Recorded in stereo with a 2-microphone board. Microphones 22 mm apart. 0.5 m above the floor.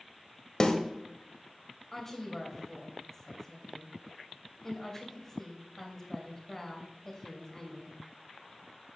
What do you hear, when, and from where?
0.6 s a snare drum: 30° left (ahead or behind), 1.2 m
1.9 s a woman speaking: 20° left (ahead or behind), 2 m